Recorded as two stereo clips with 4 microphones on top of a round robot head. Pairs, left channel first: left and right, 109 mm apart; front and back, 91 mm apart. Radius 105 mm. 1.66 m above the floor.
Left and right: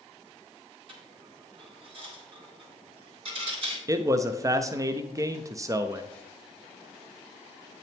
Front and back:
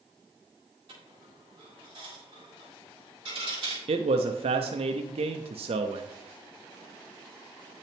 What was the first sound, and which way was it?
A dropped coin, 125° right.